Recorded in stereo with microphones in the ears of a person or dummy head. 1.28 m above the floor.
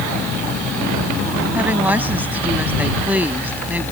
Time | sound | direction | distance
1.5 | a woman speaking | 10° right (ahead or behind) | ?